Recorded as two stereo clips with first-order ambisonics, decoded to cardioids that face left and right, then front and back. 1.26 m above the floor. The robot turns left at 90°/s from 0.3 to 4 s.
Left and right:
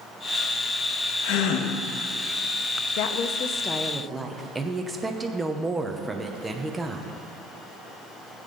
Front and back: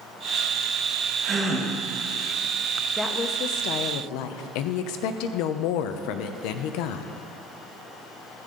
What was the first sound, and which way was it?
A gasp, 110° left.